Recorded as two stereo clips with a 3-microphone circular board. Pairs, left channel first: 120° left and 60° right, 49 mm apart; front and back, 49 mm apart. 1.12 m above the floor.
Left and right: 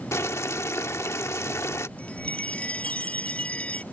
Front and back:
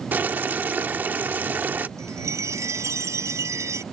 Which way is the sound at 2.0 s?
175° right.